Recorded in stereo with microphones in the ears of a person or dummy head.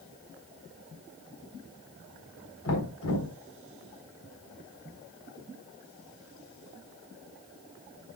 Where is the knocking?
75° left (ahead or behind), 4.5 m.